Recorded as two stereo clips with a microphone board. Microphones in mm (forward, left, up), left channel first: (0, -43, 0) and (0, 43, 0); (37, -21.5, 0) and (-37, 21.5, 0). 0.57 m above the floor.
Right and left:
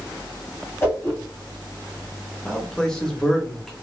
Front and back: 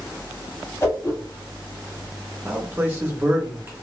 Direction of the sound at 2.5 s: 170° right.